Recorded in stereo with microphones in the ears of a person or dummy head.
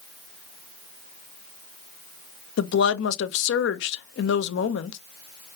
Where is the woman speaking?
75° left (ahead or behind), 0.8 m.